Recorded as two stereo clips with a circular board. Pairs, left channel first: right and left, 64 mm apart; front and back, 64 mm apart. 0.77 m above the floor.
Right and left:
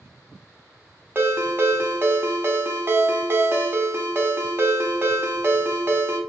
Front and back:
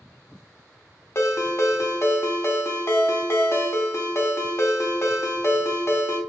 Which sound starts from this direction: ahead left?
A ringtone, at 1.1 s.